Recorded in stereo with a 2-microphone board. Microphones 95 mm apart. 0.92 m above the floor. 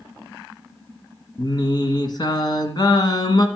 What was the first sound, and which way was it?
Singing, 50° left (ahead or behind).